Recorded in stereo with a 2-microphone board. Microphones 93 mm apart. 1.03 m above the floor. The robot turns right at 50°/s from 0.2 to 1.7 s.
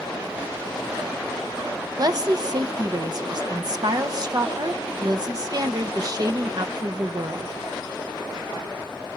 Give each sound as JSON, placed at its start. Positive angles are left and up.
{"t": 2.0, "sound": "a woman speaking", "side_deg": -45, "distance_m": 0.9}